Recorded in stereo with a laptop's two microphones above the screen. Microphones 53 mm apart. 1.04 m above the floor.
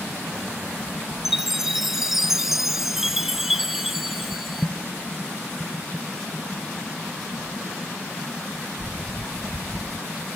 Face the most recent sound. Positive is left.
turn(degrees=-5)  # may be behind; listen again after turning